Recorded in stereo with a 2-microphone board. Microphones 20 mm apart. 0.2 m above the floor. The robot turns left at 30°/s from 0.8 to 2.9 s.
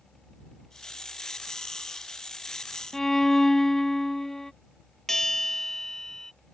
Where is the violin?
20° left (ahead or behind).